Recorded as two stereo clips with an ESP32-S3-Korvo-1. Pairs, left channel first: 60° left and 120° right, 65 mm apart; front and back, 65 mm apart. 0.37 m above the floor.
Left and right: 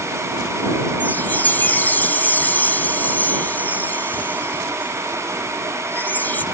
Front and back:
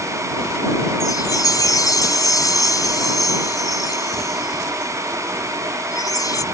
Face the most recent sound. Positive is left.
turn(degrees=0)